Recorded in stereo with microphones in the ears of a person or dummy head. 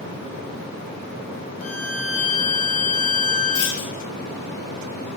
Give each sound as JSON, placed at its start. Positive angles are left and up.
{"t": 1.6, "sound": "a violin", "side_deg": 60, "distance_m": 4.0}
{"t": 3.5, "sound": "a clunk", "side_deg": 65, "distance_m": 1.3}